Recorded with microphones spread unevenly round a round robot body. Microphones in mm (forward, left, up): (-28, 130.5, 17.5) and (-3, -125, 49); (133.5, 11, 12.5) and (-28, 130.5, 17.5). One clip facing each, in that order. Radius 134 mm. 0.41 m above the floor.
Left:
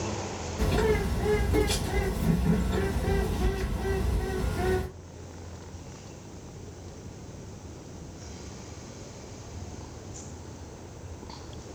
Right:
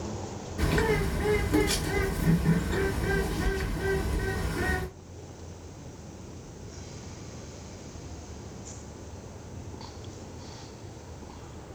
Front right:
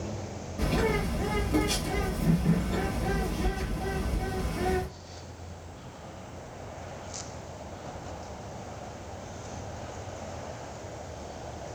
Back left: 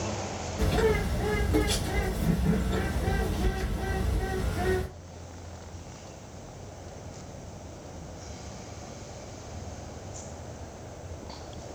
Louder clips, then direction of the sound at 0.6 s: Left 1 dB, back left 2 dB; 145° right.